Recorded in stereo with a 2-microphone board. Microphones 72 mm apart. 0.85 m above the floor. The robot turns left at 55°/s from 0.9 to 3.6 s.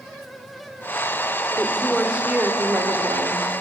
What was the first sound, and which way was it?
A woman speaking, 20° left.